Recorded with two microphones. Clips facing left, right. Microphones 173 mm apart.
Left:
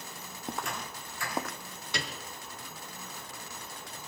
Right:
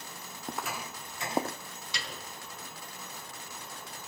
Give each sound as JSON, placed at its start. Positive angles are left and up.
{"t": 0.4, "sound": "footsteps", "side_deg": 5, "distance_m": 1.0}
{"t": 1.9, "sound": "a piano", "side_deg": 55, "distance_m": 3.5}